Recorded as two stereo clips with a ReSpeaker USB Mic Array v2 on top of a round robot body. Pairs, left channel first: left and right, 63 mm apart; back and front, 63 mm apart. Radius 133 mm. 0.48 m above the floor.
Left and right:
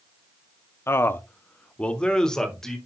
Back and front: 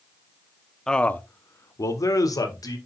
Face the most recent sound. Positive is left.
turn(degrees=175)